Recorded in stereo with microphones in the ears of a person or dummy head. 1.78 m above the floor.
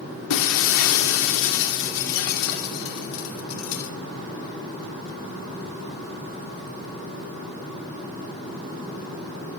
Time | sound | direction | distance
0.3 | breaking glass | 70° left (ahead or behind) | 3.5 m